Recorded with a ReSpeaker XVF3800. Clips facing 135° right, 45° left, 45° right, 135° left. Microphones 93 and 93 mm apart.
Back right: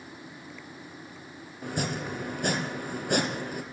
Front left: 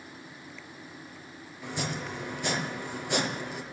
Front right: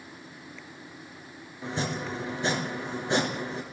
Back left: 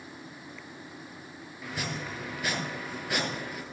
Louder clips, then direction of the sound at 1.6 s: Back right 3 dB, front right 5 dB; 105° right.